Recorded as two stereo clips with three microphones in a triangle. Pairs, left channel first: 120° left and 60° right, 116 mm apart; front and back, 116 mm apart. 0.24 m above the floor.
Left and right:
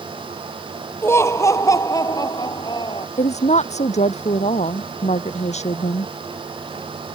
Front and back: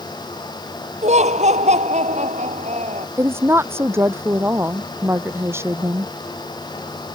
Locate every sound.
1.0 s laughter: 170° right; by 3.1 s 165° left
3.2 s a woman speaking: 110° left